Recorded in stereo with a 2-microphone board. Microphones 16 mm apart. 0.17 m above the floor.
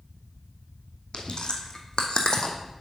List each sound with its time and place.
1.1 s chewing: 65° left (ahead or behind), 1.2 m